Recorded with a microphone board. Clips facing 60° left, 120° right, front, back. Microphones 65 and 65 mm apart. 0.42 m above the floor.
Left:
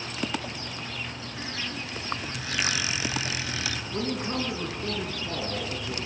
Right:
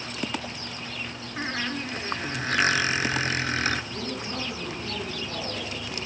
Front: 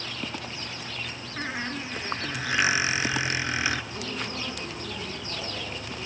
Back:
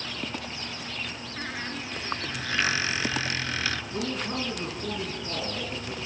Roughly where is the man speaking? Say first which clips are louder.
Left 3 dB, back 3 dB; behind left.